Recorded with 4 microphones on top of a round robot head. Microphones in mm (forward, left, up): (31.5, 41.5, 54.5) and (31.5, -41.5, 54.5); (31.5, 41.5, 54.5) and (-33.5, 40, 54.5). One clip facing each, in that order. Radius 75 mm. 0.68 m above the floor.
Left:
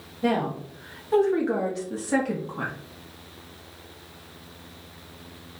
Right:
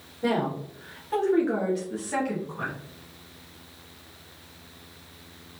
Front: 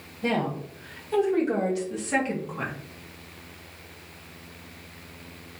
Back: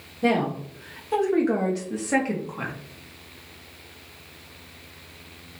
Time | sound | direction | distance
0.2 | a woman speaking | 175° right | 1.7 m